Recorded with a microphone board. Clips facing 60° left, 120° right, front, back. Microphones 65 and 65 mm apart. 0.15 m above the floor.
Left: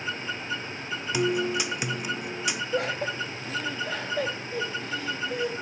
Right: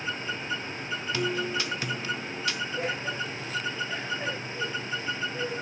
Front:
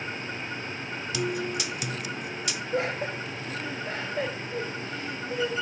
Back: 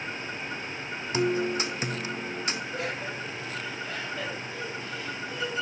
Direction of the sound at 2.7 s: 50° left.